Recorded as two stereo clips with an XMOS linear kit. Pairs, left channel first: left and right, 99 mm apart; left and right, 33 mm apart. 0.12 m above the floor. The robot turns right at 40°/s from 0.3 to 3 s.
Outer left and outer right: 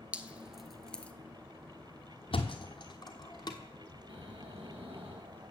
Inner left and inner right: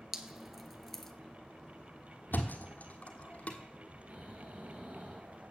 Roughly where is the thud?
Left.